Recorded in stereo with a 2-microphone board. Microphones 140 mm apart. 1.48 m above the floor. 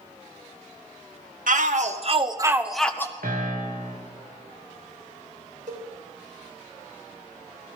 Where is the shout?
70° right (ahead or behind), 1.2 m; by 3.1 s 20° left (ahead or behind), 1.0 m.